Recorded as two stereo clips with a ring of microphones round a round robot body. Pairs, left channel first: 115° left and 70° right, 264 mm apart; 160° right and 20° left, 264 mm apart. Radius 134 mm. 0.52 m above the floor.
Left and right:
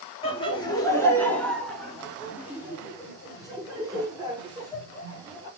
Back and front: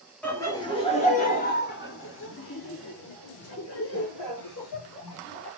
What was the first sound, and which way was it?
Laughter, 130° left.